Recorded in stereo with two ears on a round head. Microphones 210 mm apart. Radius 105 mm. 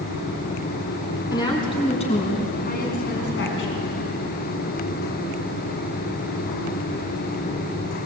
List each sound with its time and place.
1.3 s a woman speaking: 15° left (ahead or behind), 5 m; by 3.9 s 55° left (ahead or behind), 4.5 m